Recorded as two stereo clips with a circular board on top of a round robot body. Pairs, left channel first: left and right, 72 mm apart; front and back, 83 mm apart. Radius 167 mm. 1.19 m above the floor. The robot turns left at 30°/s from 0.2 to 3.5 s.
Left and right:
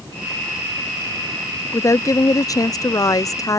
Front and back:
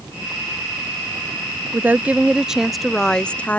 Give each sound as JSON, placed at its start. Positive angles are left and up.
{"t": 1.7, "sound": "a woman speaking", "azimuth_deg": 120}